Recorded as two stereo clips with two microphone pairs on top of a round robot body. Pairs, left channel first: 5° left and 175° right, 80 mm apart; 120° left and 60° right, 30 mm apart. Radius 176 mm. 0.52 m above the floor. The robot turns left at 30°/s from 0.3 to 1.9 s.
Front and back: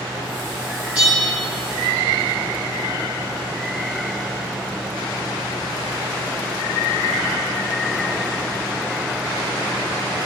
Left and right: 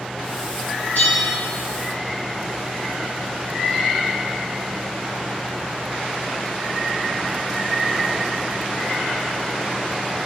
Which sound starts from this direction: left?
A bell, at 0.9 s.